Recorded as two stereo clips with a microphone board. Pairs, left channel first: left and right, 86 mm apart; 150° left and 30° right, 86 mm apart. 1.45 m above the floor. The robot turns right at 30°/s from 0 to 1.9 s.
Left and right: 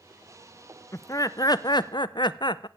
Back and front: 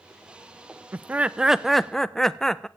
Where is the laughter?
35° left, 0.6 m; by 2.7 s 65° left, 0.6 m.